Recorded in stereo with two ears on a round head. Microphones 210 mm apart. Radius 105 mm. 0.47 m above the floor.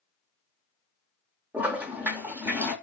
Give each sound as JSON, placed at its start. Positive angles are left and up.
{"t": 1.5, "sound": "a toilet flushing", "side_deg": -10, "distance_m": 0.5}